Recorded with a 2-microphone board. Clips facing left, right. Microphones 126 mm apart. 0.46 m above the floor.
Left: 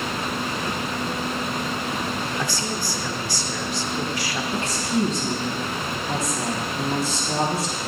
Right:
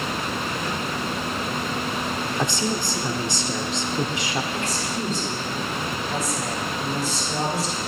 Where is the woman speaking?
70° left (ahead or behind), 3.5 m.